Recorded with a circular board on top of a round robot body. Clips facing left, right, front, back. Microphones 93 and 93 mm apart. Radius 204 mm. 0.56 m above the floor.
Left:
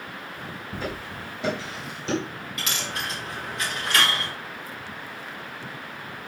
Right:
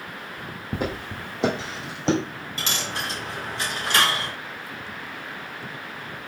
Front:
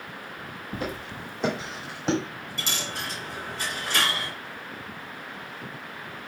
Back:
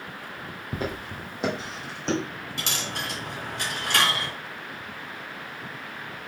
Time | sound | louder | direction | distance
0.7 | footsteps | right 5 dB, back 1 dB | 125° right | 2 m
2.6 | a dropped coin | right 2 dB, back 1 dB | 150° right | 1.8 m